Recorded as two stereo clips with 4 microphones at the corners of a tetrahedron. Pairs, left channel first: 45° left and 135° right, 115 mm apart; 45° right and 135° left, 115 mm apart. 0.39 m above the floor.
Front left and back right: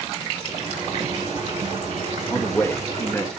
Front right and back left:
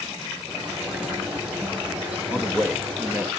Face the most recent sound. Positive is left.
turn(degrees=80)